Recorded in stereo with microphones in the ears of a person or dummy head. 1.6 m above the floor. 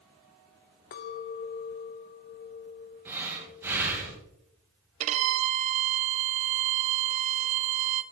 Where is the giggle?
No giggle in this recording.